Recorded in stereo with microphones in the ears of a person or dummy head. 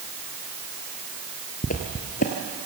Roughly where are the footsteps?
Left.